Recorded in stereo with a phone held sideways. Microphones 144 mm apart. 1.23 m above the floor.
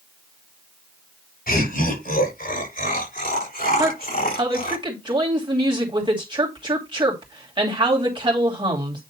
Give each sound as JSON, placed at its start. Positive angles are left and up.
{"t": 1.5, "sound": "laughter", "side_deg": 80, "distance_m": 6.5}
{"t": 3.8, "sound": "a woman speaking", "side_deg": -30, "distance_m": 2.5}